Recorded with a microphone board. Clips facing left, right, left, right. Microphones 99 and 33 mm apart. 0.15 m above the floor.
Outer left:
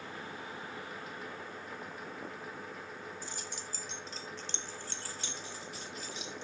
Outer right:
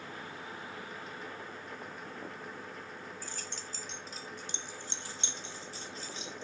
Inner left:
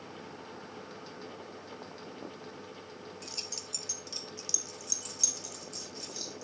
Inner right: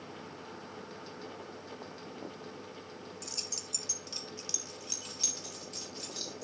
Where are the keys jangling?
20° left (ahead or behind), 1.8 m; by 6.4 s 35° right (ahead or behind), 4 m.